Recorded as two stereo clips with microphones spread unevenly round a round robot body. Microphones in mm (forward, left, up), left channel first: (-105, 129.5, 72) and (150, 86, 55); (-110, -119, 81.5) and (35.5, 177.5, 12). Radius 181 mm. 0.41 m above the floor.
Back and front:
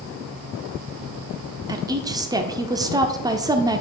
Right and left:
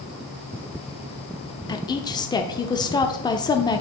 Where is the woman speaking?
30° right, 0.8 m.